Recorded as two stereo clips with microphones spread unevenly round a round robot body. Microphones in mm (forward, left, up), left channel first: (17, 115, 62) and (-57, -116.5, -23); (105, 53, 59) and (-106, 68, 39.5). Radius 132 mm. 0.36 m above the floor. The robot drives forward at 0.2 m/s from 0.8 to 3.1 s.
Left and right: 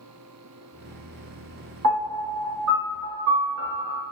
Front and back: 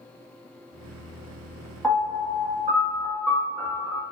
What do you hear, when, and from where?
1.8 s a piano: 95° right, 1.0 m; by 4.0 s 110° right, 1.1 m